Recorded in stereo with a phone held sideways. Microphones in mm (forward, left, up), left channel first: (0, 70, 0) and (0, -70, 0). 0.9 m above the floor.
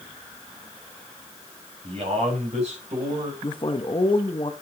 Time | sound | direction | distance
1.8 | a man speaking | 45° right (ahead or behind) | 6.5 m
3.4 | a man speaking | 40° left (ahead or behind) | 1.2 m